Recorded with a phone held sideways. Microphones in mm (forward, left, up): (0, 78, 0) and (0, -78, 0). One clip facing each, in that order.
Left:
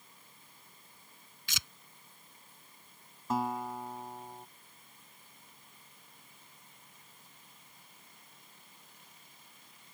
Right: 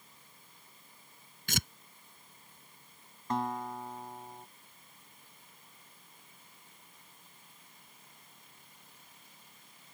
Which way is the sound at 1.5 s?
55° right (ahead or behind).